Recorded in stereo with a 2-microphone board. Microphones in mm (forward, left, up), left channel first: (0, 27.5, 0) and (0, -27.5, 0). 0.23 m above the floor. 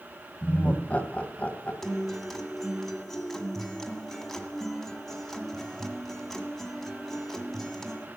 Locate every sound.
0.4 s laughter: 25° left (ahead or behind), 1.2 m
1.8 s a guitar: 5° left (ahead or behind), 1.4 m